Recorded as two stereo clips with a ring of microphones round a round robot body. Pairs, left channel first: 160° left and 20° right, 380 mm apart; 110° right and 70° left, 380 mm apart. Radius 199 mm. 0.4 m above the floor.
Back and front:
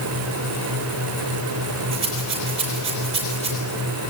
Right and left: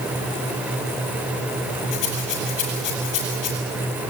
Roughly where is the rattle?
Ahead right.